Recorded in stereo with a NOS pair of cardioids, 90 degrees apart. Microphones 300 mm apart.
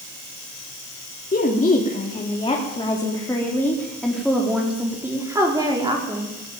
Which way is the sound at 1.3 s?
30° left.